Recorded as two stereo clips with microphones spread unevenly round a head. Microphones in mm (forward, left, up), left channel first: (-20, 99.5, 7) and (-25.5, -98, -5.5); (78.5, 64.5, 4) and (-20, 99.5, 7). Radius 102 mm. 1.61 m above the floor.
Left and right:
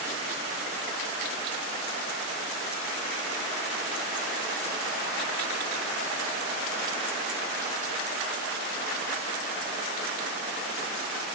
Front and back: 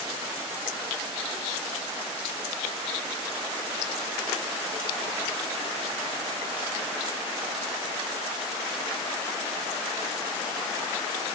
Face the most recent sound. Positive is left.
No sound to turn to.